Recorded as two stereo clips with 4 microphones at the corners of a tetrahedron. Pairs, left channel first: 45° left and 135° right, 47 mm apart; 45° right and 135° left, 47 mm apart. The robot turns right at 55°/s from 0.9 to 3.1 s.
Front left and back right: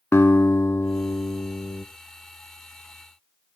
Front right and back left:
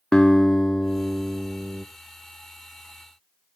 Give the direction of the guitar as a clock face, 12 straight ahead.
11 o'clock.